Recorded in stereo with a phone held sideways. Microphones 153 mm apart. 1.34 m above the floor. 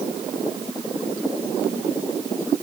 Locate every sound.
Only background noise.